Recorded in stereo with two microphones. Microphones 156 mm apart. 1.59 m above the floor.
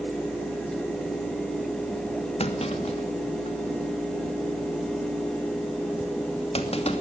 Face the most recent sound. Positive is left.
turn(degrees=40)  # may be behind; listen again after turning